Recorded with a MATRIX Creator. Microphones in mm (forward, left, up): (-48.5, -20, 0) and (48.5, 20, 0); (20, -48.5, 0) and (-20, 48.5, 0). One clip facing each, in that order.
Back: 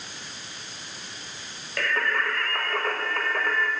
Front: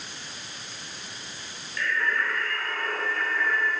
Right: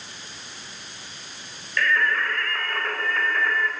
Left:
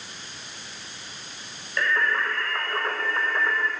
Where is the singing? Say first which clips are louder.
Back 1 dB, right 1 dB; straight behind, 4 m.